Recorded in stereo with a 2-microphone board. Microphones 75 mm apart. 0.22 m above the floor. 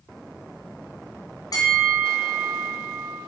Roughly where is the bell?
Left.